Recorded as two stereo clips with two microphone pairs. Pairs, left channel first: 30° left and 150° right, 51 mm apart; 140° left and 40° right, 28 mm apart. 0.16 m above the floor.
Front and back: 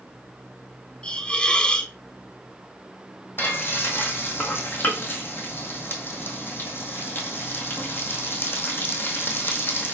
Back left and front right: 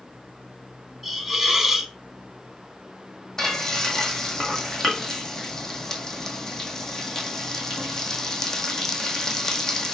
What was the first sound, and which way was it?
A hiss, 45° left.